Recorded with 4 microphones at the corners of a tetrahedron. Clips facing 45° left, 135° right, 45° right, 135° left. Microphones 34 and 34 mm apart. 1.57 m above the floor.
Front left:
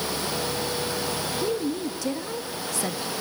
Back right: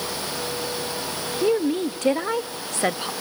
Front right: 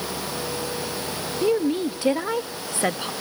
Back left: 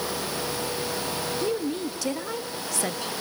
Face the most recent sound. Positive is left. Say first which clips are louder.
# back right 9 dB, front right 9 dB
turn(degrees=-100)